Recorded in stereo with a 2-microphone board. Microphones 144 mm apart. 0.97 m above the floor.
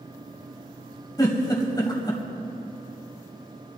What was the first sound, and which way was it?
A giggle, 25° left (ahead or behind).